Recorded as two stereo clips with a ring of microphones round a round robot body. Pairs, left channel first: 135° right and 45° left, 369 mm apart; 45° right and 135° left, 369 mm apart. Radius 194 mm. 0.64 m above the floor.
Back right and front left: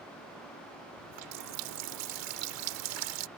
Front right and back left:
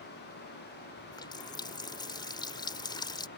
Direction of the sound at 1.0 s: 35° left.